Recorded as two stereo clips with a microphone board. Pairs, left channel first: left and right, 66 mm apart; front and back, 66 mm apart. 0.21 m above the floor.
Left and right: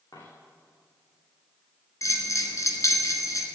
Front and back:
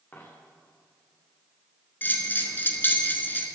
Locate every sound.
0.1 s a dropped coin: 65° left, 5 m
2.0 s a bell: 60° left, 2 m